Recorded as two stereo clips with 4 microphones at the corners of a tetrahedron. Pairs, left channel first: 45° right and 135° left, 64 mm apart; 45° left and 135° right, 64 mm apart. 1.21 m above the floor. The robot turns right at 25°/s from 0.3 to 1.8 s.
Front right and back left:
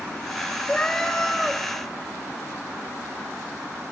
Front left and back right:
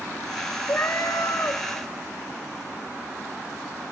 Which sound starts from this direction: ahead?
A cat meowing, at 0.7 s.